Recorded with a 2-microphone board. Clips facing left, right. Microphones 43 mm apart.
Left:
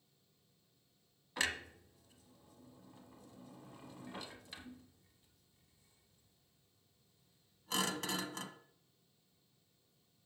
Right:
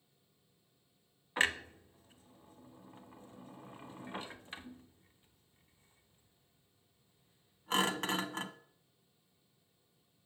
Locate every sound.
1.4 s a clunk: 35° right (ahead or behind), 0.5 m